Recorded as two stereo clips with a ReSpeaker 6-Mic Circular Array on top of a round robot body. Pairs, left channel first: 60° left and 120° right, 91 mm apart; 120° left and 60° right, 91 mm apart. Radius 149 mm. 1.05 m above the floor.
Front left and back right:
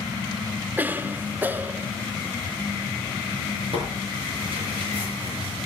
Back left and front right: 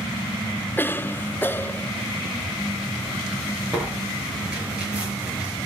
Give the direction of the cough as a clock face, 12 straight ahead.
6 o'clock.